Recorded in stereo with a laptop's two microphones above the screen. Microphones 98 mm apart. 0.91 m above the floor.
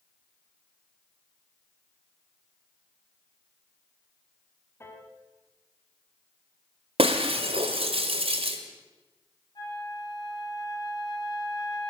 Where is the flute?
50° left (ahead or behind), 4.5 m.